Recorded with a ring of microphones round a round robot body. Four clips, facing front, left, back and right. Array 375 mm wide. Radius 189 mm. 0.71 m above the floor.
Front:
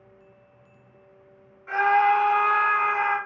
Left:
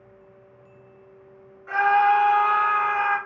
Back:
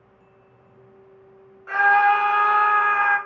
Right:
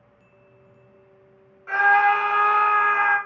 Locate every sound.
1.7 s a scream: 150° right, 1.9 m